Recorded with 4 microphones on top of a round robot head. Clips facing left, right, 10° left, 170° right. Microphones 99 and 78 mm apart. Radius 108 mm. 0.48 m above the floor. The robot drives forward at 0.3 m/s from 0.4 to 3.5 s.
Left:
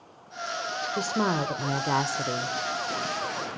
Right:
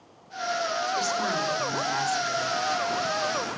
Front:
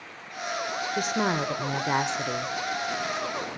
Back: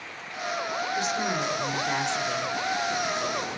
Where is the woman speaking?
50° left, 1.8 m; by 2.5 s 65° left, 1.5 m.